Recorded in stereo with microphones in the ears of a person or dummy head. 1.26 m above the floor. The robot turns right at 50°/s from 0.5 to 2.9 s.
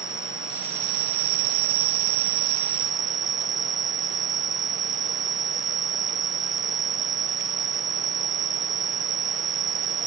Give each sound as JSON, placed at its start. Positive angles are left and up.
{"t": 0.0, "sound": "an insect", "azimuth_deg": -135}